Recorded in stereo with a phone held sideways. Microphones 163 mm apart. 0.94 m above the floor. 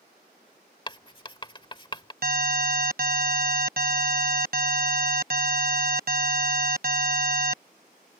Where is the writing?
30° left (ahead or behind).